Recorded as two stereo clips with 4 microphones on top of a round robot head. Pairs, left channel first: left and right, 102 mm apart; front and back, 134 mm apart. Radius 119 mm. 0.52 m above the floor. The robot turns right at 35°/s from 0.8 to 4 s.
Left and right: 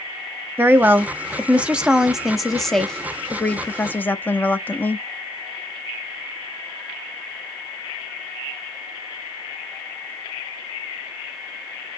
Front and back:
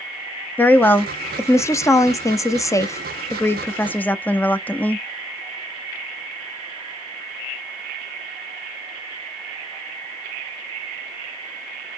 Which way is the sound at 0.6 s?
55° right.